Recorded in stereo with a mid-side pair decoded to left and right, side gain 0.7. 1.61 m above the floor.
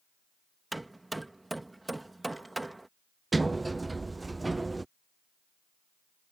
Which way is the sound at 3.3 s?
10° right.